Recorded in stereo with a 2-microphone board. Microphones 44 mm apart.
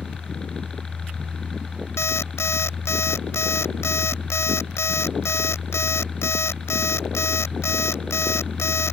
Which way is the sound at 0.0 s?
15° left (ahead or behind).